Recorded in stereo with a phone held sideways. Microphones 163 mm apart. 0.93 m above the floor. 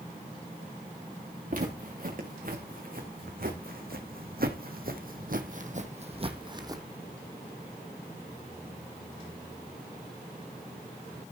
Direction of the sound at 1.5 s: 55° right (ahead or behind).